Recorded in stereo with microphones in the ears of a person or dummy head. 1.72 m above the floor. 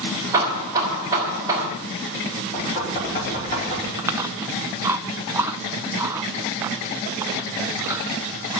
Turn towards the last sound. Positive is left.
turn(degrees=-10)  # may be behind; listen again after turning